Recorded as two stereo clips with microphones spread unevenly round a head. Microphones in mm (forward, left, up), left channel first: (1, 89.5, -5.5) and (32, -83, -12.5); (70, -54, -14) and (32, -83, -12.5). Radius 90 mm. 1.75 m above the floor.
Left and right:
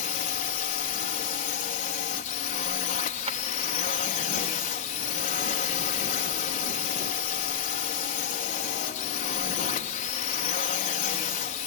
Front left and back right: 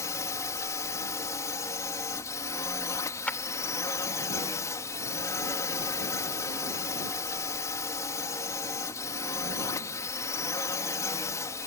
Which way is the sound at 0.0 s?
55° left.